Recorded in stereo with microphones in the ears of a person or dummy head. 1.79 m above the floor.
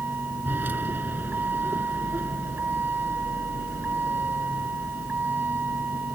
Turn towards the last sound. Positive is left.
turn(degrees=-10)  # may be behind; listen again after turning